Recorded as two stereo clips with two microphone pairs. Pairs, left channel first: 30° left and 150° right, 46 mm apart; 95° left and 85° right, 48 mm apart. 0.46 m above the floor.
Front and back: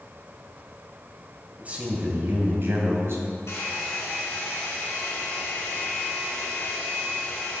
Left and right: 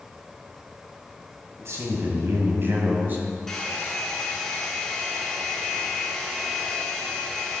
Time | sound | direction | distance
1.6 | a man speaking | 95° right | 2.5 m
3.5 | a hair dryer | 15° left | 2.5 m